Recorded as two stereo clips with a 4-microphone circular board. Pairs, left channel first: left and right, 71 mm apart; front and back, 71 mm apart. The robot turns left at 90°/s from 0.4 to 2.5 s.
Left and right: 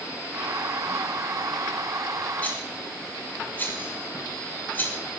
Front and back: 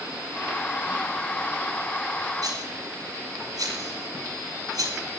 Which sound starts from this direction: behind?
A rattle, at 2.4 s.